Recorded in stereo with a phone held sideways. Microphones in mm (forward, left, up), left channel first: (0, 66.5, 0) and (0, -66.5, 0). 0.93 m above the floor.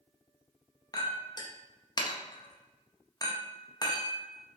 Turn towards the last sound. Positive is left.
turn(degrees=30)  # may be behind; listen again after turning